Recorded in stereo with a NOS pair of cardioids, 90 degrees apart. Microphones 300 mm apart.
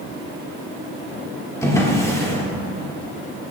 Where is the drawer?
10° left, 2.5 m.